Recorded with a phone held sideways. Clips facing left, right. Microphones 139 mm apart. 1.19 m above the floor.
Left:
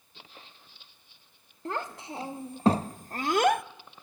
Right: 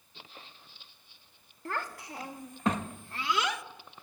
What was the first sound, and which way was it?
A child speaking, 25° left (ahead or behind).